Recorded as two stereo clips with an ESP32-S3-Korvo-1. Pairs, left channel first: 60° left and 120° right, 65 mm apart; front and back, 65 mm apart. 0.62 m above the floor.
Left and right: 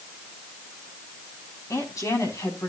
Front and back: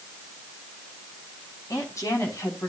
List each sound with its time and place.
1.7 s a woman speaking: 30° left, 4.5 m; by 2.7 s 40° left, 5 m